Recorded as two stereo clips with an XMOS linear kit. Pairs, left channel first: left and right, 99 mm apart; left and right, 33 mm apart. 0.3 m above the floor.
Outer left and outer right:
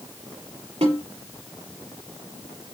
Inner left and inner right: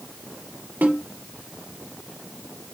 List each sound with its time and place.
0.8 s a snare drum: 80° right, 4 m